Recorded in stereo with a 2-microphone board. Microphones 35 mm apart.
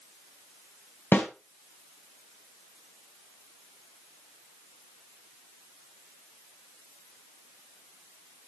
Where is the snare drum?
65° left (ahead or behind), 2.0 m.